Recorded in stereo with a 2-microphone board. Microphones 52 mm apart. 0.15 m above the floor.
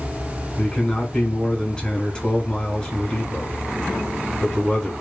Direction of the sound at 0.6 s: 15° left (ahead or behind).